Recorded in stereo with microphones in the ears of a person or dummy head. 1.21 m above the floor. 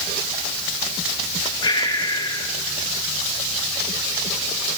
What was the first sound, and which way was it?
Breathing, 25° left (ahead or behind).